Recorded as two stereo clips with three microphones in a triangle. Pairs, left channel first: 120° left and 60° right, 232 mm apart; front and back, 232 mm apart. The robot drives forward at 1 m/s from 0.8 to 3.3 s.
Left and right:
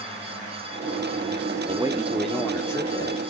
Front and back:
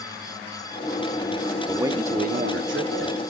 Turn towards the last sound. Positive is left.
turn(degrees=-170)